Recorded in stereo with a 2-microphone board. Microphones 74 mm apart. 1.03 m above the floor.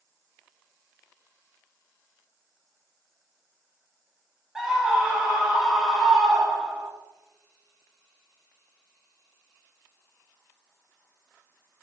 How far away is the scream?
About 0.7 m.